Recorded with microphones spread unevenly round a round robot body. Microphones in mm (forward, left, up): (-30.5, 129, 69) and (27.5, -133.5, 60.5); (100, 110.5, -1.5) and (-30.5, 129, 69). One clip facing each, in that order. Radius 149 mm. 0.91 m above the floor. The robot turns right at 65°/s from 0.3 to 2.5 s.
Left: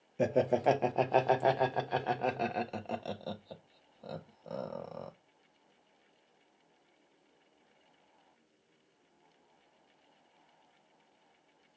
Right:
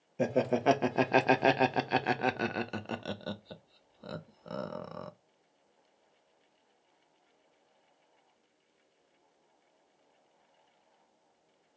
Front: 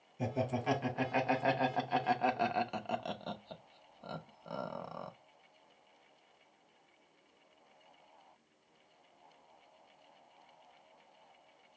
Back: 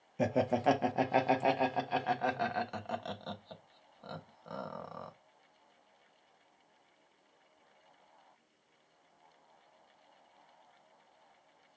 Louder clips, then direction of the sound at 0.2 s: Even, back 6 dB; 165° right.